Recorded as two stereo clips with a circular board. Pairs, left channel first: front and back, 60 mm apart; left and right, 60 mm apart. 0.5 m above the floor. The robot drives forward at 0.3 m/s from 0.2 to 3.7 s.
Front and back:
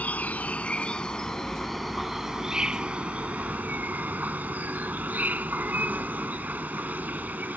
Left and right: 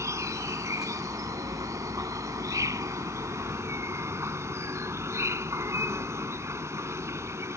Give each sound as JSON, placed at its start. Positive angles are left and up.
{"t": 0.0, "sound": "an insect", "azimuth_deg": -60}